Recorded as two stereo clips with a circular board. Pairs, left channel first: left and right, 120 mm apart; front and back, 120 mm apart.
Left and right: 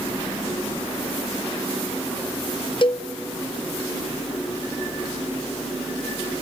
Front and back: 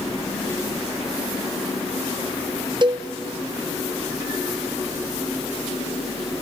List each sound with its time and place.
2.8 s a cowbell: 130° left, 1.0 m